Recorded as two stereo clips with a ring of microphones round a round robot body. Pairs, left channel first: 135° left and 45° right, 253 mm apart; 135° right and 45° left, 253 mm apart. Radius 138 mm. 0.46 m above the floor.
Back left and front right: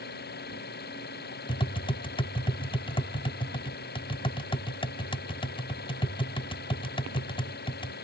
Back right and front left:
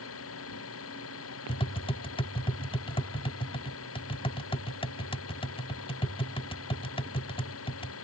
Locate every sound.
0.0 s an engine running: 170° right
1.5 s tapping: straight behind